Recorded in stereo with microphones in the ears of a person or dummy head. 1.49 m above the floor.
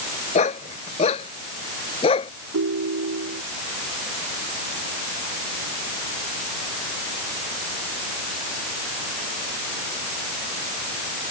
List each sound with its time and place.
0.3 s a dog barking: 30° left (ahead or behind); by 2.3 s 25° left (ahead or behind)
2.5 s a ringtone: 85° right